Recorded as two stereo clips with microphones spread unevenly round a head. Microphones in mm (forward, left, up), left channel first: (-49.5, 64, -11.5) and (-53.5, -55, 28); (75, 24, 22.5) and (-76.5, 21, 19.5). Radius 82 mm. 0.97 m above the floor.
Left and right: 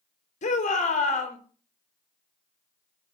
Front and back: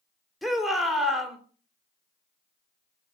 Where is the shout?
90° left, 3.5 m.